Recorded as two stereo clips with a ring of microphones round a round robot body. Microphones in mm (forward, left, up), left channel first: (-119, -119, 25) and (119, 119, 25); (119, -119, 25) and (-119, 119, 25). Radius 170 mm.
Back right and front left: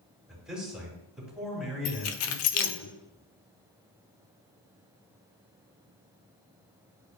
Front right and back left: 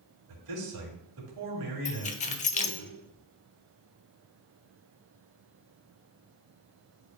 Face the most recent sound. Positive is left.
turn(degrees=-110)